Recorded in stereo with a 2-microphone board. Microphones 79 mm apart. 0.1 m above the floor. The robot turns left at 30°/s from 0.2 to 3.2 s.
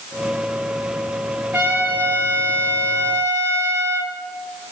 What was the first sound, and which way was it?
A trumpet, 20° right.